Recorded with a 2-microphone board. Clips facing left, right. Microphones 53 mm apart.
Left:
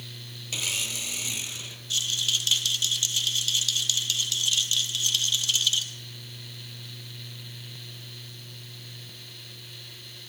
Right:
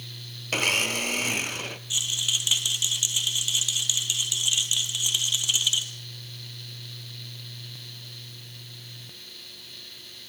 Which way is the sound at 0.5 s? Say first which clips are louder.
Right 8 dB; 50° right (ahead or behind).